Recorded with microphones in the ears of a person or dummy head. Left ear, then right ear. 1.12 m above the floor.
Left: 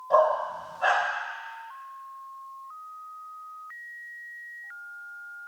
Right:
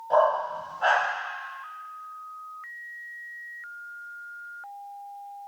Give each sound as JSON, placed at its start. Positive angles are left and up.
{"t": 0.1, "sound": "a dog barking", "side_deg": -15, "distance_m": 2.5}